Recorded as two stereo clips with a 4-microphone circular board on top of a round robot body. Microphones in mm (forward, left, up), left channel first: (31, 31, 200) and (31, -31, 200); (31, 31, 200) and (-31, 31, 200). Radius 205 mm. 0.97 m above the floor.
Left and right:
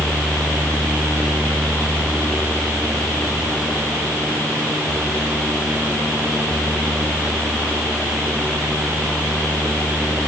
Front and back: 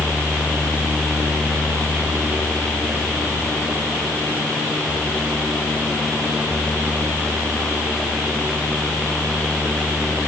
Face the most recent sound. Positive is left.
No sound to turn to.